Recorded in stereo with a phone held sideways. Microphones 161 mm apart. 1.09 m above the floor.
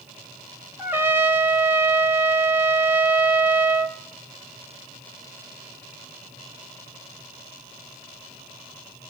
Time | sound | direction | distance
0.8 | a trumpet | 15° right (ahead or behind) | 1.2 m